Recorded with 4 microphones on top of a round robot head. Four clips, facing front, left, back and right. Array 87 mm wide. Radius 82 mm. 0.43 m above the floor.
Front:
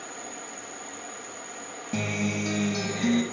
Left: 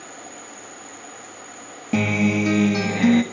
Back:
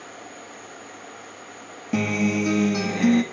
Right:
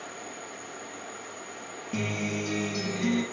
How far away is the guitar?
About 1.7 m.